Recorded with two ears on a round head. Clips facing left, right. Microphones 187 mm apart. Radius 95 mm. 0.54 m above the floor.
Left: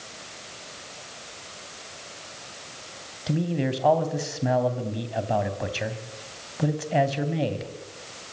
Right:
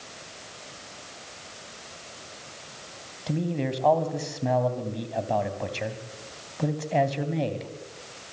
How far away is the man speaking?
About 3 m.